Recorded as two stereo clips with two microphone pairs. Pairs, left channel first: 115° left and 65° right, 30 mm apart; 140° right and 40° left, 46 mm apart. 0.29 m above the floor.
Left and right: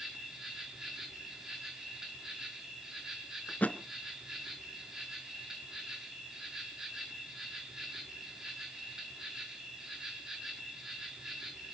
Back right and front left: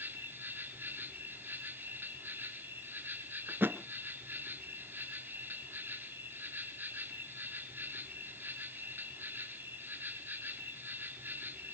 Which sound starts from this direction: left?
A thud, at 3.5 s.